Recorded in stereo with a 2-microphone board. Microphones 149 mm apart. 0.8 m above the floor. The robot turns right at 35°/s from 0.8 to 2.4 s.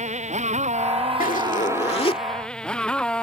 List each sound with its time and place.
0.0 s a motorcycle: 50° right (ahead or behind); by 3.2 s 5° left (ahead or behind)
1.2 s a zipper: 110° left; by 2.2 s 145° left